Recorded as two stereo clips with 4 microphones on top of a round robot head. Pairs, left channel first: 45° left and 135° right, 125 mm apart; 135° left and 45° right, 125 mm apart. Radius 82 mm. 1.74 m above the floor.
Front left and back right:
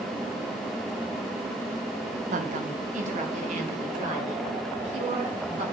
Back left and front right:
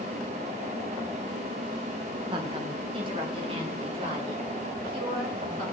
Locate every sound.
2.3 s a woman speaking: 105° right, 1.7 m; by 5.6 s 100° right, 6 m